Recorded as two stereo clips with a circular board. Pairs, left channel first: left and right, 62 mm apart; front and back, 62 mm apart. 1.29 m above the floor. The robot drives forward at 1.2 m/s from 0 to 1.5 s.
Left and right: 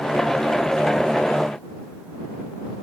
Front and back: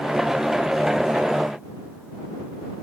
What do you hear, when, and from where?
Only background noise.